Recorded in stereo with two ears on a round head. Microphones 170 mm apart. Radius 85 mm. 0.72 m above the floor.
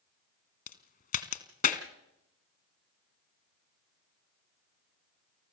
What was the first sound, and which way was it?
A crack, 45° left (ahead or behind).